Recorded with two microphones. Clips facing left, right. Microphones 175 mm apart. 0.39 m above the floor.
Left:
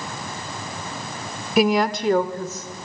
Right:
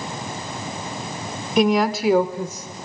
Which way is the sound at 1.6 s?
5° left (ahead or behind).